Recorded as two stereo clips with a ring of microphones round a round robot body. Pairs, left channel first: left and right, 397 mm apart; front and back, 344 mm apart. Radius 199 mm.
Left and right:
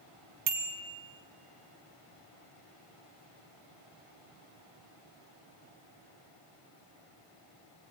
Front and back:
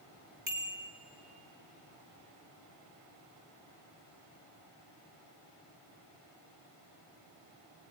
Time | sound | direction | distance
0.5 | a bicycle bell | 110° right | 3 m